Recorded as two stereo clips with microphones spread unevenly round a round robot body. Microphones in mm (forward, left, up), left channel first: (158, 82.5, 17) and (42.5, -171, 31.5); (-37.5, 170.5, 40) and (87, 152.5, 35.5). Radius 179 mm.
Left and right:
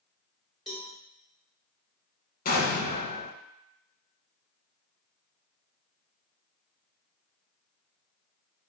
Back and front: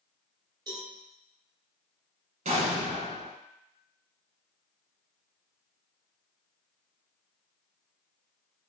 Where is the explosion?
5° left, 0.7 m.